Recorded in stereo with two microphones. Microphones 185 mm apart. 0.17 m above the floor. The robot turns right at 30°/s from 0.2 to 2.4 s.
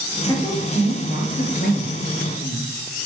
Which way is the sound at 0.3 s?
20° left (ahead or behind).